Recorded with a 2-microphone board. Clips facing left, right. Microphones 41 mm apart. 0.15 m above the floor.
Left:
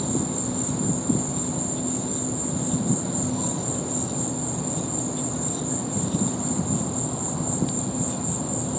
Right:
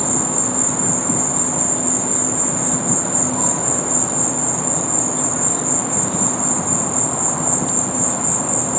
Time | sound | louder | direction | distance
0.0 | an insect | right 4 dB | 70° right (ahead or behind) | ?